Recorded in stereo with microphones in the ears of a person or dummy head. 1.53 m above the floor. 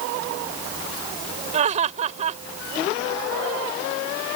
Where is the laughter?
35° right (ahead or behind).